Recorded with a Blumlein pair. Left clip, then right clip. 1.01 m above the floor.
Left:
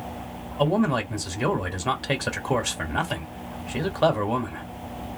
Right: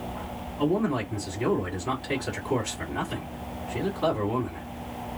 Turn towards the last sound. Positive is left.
turn(degrees=45)